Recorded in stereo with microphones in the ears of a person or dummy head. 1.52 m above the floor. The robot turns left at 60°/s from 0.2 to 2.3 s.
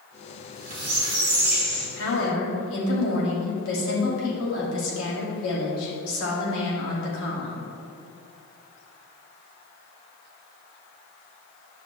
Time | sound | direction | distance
0.4 | a squeak | 110° right | 2 m
2.0 | a woman speaking | 70° left (ahead or behind) | 2.5 m